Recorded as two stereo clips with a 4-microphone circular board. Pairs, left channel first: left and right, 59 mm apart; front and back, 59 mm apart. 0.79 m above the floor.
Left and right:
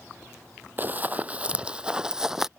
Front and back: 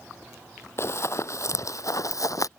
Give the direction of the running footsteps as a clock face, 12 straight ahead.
1 o'clock.